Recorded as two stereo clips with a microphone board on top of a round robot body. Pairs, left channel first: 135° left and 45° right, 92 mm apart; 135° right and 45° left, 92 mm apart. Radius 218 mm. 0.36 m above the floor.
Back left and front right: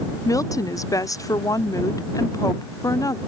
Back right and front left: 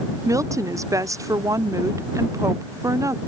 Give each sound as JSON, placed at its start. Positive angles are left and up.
{"t": 0.2, "sound": "a woman speaking", "azimuth_deg": 90}